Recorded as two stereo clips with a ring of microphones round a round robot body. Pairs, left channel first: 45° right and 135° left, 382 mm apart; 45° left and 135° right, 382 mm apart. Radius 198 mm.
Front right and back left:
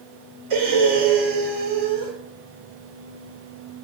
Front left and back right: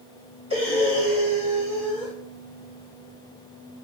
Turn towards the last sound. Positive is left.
turn(degrees=150)